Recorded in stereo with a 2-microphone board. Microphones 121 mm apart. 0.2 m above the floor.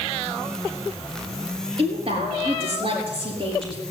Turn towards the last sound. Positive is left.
turn(degrees=-55)  # may be behind; listen again after turning